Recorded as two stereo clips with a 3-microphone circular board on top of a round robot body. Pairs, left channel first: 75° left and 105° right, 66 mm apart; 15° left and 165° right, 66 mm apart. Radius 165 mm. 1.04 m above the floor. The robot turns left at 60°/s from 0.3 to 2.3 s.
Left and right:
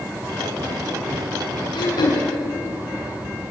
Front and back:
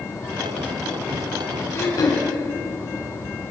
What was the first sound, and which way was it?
Throat clearing, 70° left.